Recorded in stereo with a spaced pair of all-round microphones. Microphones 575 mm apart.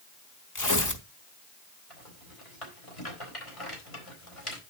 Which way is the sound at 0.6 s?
30° left (ahead or behind).